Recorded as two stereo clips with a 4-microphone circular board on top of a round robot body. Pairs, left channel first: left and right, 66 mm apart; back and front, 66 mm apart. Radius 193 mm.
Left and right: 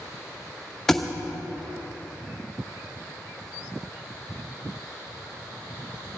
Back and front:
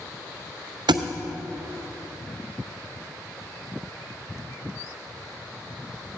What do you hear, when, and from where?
0.9 s a thud: 5° left, 0.6 m